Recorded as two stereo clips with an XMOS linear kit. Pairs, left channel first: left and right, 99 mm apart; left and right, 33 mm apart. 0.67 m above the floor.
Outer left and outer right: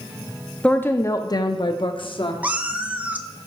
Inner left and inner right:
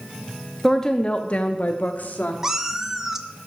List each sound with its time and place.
0.6 s a woman speaking: 10° left (ahead or behind), 0.5 m; by 2.3 s 60° left (ahead or behind), 1.0 m
2.4 s a cat meowing: 15° right (ahead or behind), 0.6 m